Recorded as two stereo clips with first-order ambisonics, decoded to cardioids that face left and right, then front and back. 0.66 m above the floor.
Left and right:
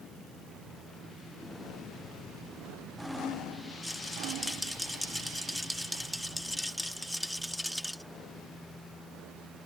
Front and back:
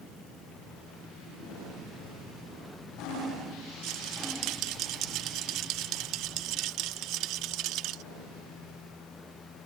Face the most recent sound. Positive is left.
turn(degrees=180)